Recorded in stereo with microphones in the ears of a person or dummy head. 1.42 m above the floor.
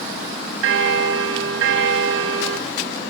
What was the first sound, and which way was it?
A bell, 70° right (ahead or behind).